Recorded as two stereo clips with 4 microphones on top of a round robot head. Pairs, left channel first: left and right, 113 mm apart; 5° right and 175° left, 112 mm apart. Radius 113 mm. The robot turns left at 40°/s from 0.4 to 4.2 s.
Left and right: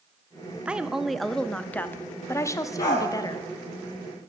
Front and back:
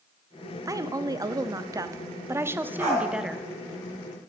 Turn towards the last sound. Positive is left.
turn(degrees=50)